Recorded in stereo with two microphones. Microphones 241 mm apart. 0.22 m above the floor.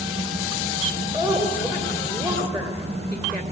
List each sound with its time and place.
1.1 s a woman speaking: 15° right (ahead or behind), 3 m